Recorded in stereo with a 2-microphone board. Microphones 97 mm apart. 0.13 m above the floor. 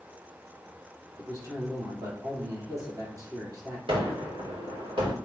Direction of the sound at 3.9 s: 65° right (ahead or behind).